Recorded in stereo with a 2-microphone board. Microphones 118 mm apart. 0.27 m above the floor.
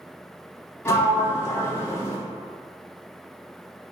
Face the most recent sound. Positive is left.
turn(degrees=25)  # may be behind; listen again after turning